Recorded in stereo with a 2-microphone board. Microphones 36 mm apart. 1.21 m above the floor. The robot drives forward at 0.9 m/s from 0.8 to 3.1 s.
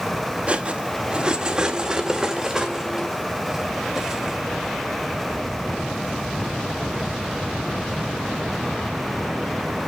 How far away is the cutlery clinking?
About 1.2 m.